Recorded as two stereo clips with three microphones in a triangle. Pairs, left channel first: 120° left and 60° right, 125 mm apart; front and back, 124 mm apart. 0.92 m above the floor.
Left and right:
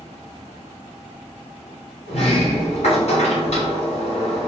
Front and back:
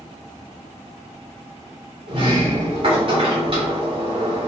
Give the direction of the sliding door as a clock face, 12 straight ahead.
7 o'clock.